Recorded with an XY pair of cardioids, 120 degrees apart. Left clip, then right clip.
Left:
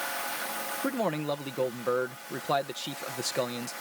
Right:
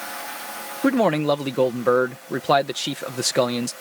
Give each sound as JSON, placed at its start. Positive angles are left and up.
{"t": 0.8, "sound": "a man speaking", "azimuth_deg": -55}